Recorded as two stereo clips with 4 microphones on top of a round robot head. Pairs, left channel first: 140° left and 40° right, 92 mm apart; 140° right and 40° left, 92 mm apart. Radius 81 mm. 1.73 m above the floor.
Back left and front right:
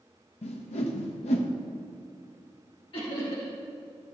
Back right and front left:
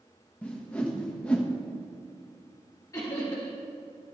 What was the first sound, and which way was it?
A whoosh, 145° left.